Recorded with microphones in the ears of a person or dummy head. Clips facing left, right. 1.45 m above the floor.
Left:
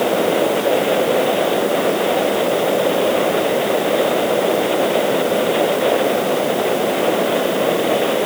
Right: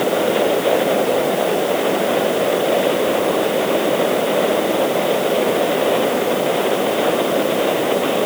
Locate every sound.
Only background noise.